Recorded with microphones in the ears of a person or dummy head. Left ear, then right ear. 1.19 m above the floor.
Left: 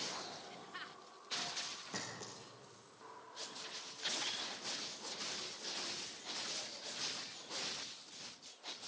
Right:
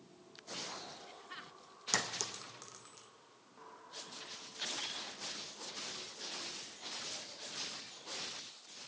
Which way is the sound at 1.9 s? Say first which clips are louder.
Right 9 dB; 50° right (ahead or behind).